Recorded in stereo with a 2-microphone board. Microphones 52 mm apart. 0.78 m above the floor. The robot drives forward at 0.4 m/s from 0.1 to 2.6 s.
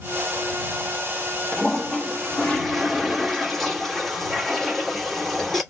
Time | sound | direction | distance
1.5 | a toilet flushing | 5° left (ahead or behind) | 1.1 m